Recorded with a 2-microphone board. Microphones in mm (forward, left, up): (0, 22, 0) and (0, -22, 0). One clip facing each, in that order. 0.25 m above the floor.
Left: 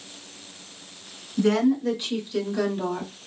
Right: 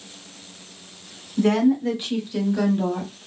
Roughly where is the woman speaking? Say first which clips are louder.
Right 2 dB; right.